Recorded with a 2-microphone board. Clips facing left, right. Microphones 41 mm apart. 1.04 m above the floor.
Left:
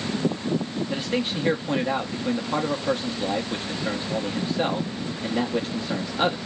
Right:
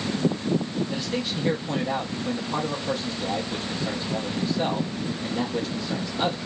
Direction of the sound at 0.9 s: 30° left (ahead or behind).